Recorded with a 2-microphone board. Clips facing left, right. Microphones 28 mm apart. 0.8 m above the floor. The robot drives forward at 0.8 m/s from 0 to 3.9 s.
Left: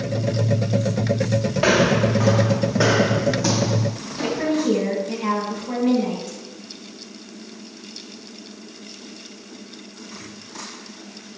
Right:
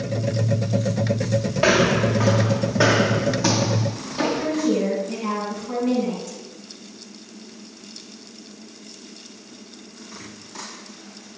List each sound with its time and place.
1.6 s footsteps: 5° left (ahead or behind), 5 m; by 4.5 s 40° right (ahead or behind), 1.7 m
4.2 s a woman speaking: 35° left (ahead or behind), 8 m